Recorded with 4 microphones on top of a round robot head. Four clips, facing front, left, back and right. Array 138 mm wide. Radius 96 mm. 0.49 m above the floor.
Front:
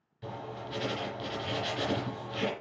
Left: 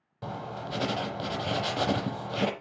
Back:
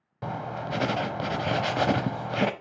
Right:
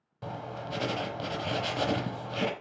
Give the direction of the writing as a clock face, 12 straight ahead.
6 o'clock.